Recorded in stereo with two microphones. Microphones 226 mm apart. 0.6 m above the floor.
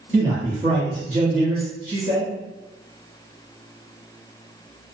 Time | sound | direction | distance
0.1 | a man speaking | 40° right (ahead or behind) | 0.9 m